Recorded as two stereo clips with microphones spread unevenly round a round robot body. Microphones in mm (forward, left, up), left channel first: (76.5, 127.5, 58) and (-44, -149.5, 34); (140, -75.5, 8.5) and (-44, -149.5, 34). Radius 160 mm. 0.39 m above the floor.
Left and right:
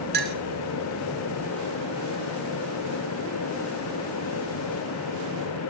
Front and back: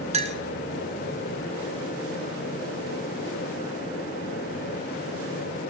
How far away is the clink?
About 0.9 m.